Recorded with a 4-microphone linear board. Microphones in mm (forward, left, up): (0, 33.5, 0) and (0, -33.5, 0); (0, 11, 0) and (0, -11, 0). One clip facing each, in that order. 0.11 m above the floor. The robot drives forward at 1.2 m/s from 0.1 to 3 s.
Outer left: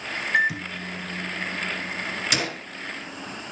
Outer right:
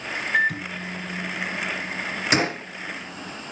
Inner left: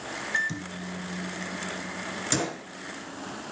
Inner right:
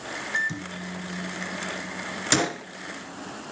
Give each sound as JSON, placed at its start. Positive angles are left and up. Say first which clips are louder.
{"t": 0.3, "sound": "a microwave", "louder": "even, inner right 1 dB", "side_deg": 5, "distance_m": 1.0}
{"t": 2.3, "sound": "a gunshot", "louder": "outer right 9 dB, inner right 6 dB", "side_deg": -35, "distance_m": 0.8}